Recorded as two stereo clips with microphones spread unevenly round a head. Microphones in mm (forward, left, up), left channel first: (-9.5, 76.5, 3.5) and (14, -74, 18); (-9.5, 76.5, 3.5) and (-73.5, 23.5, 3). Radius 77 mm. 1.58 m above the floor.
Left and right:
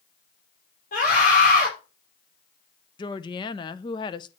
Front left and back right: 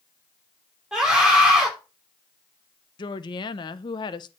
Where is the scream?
140° left, 4.5 m.